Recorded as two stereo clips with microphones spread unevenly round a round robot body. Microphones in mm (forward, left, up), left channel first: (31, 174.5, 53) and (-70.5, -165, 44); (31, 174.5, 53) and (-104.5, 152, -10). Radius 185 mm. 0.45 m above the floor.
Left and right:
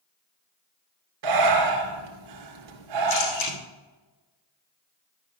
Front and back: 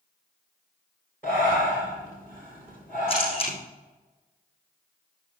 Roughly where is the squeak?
I don't hear a squeak.